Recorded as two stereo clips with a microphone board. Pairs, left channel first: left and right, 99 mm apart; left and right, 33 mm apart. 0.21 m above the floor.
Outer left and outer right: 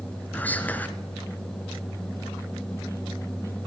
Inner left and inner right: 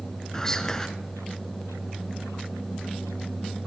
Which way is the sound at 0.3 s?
15° left (ahead or behind).